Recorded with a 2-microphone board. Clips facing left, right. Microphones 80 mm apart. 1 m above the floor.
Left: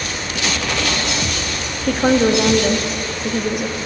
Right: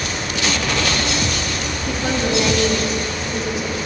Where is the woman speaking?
55° left (ahead or behind), 1.1 m.